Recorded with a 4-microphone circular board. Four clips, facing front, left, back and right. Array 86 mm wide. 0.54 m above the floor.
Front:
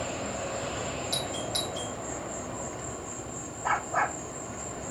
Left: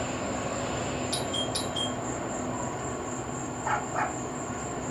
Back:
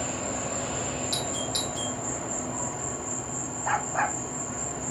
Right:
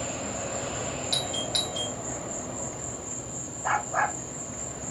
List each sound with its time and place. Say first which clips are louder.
0.0 s an insect: left 2 dB, back 1 dB; 110° left, 1.0 m
1.1 s a doorbell: left 1 dB, back 1 dB; 75° right, 3.5 m
3.6 s a dog barking: right 3 dB, even; 45° right, 6.5 m